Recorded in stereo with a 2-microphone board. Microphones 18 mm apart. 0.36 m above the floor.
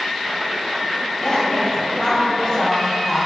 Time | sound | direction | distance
1.2 | a woman speaking | 35° left (ahead or behind) | 2.5 m